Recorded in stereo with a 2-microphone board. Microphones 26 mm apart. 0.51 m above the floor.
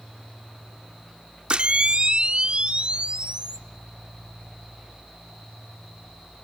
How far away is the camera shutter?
About 0.7 m.